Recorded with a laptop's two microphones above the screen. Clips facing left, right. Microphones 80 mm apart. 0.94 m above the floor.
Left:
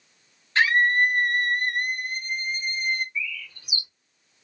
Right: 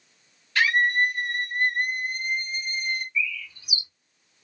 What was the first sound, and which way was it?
A scream, 30° left (ahead or behind).